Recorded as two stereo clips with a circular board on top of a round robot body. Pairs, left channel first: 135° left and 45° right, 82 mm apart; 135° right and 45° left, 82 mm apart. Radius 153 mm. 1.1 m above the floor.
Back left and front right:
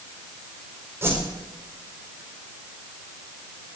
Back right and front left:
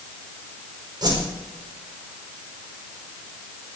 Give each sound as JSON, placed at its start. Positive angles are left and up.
{"t": 1.0, "sound": "a whoosh", "azimuth_deg": 15, "distance_m": 4.5}